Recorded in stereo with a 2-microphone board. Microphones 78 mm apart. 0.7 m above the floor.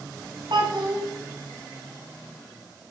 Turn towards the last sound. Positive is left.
turn(degrees=-75)  # may be behind; listen again after turning